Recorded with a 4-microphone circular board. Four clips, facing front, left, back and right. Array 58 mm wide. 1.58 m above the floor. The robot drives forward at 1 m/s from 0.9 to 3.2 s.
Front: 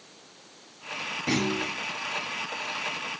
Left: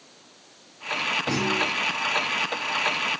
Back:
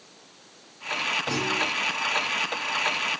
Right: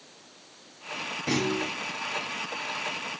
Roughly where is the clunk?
Ahead right.